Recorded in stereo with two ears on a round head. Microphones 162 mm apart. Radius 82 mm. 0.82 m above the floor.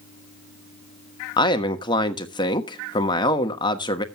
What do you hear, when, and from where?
1.4 s a man speaking: 25° left (ahead or behind), 1.2 m